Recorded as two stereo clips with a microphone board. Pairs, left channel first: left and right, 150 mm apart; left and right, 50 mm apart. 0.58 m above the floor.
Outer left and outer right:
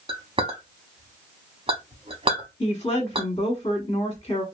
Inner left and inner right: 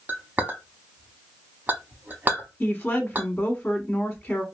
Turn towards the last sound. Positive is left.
turn(degrees=30)  # may be behind; listen again after turning